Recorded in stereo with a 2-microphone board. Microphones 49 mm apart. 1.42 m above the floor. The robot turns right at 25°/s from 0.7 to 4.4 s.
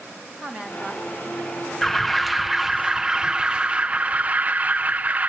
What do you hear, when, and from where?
0.4 s a woman speaking: 15° right (ahead or behind), 3 m; by 1.7 s 40° right (ahead or behind), 3 m
1.8 s an alarm: 170° left, 0.5 m; by 5.3 s 125° right, 0.5 m